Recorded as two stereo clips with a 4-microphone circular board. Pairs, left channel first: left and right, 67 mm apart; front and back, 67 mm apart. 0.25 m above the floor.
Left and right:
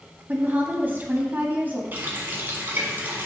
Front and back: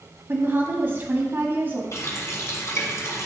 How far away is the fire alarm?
I don't hear a fire alarm.